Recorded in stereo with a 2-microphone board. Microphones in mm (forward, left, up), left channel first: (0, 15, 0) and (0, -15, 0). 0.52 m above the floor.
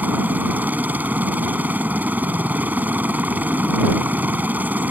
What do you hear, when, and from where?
0.0 s a helicopter: 70° right (ahead or behind)